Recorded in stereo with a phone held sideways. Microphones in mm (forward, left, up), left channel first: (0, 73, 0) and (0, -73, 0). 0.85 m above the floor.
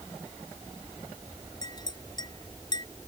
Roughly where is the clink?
Left.